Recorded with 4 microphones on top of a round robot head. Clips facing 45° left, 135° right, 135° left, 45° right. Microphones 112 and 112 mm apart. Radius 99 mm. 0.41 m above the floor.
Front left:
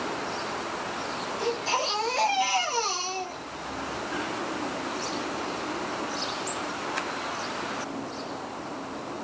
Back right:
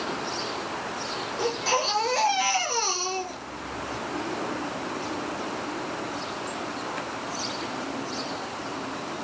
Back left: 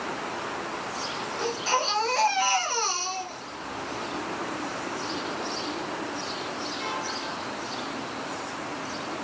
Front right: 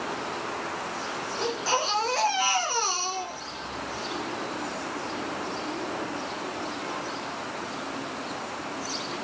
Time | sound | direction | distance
1.4 | a baby crying | 125° right | 6.5 m